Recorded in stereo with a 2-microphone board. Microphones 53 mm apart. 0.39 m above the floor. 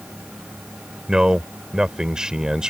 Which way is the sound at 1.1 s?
15° right (ahead or behind).